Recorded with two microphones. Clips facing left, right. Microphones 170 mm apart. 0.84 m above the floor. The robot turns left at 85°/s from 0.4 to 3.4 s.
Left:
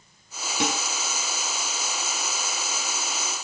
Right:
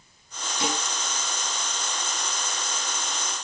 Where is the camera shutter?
I don't hear a camera shutter.